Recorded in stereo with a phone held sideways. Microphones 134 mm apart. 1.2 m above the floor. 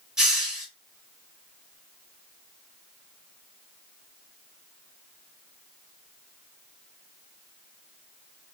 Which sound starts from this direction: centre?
A hiss, at 0.2 s.